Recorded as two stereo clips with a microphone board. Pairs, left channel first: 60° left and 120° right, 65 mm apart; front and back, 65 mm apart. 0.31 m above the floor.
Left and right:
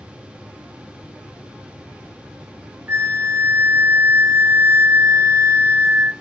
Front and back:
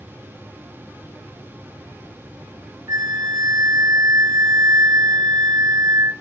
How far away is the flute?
About 0.8 m.